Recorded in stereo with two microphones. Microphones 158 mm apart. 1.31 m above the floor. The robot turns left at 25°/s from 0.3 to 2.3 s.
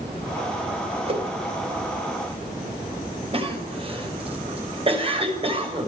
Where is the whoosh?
40° right (ahead or behind), 3.5 m; by 1.3 s 35° right (ahead or behind), 3.5 m.